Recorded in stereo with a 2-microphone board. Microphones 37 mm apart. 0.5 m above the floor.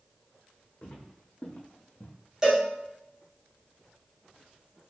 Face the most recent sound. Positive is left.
turn(degrees=-15)  # may be behind; listen again after turning